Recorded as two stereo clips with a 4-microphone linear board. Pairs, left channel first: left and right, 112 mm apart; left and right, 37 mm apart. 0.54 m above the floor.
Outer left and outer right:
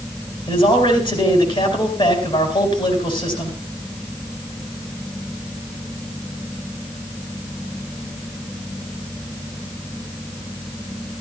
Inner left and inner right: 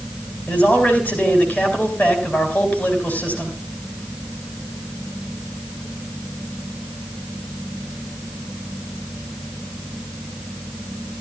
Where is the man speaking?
50° left (ahead or behind), 4 m.